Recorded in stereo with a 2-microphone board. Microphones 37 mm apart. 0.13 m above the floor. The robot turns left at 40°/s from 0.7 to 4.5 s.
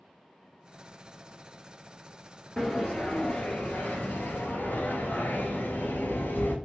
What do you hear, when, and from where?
2.6 s a sliding door: 165° left, 0.8 m; by 6.5 s 90° left, 0.8 m